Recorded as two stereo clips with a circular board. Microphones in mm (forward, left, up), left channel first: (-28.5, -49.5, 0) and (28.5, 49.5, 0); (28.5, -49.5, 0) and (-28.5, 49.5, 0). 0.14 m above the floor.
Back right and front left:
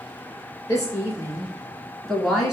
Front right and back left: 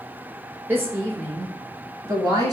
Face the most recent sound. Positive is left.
turn(degrees=140)